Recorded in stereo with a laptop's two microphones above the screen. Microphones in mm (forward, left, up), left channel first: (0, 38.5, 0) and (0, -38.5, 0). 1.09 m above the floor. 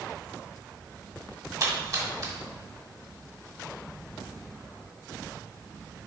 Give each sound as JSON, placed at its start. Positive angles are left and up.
{"t": 1.6, "sound": "a splash", "side_deg": -50, "distance_m": 1.9}